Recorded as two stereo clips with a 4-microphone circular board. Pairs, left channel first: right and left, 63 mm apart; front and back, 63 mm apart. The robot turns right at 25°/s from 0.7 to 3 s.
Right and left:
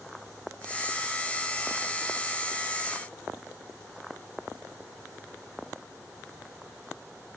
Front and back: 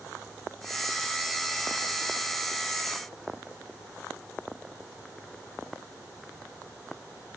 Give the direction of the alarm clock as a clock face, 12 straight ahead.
No alarm clock in this recording.